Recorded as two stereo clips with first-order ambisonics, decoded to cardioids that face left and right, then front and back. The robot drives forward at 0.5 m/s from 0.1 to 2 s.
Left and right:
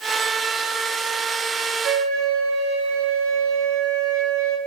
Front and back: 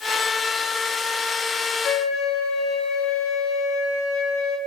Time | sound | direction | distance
1.8 | a flute | 55° right | 2.5 m